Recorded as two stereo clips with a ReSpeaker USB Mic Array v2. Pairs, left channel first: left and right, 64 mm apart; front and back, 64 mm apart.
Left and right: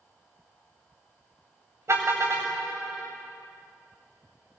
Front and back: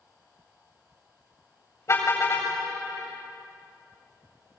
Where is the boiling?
No boiling in this recording.